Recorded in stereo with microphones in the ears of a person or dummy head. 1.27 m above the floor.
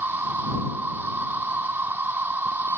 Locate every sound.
0.0 s an insect: 15° right (ahead or behind)